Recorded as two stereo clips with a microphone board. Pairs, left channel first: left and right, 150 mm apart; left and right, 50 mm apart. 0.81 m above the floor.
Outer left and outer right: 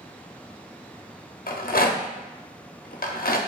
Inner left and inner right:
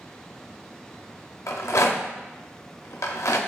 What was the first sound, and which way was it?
A rattle, 75° left (ahead or behind).